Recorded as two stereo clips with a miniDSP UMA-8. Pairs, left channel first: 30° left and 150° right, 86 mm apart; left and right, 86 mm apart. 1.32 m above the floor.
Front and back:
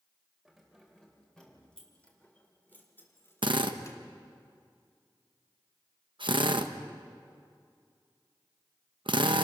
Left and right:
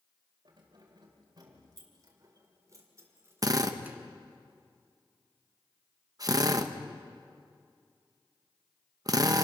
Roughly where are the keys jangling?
Ahead right.